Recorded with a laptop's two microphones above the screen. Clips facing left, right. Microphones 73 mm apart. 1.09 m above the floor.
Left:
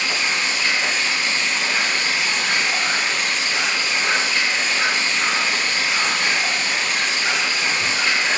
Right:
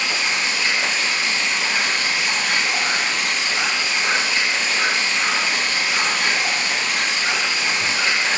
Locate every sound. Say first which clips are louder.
0.0 s running water: even; 40° left (ahead or behind), 2.5 m